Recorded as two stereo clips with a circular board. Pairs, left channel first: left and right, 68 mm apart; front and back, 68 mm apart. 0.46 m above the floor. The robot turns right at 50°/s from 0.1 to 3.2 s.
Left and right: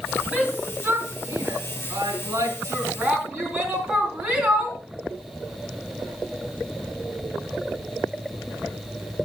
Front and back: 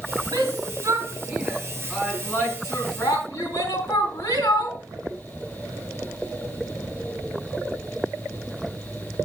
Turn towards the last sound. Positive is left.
turn(degrees=-15)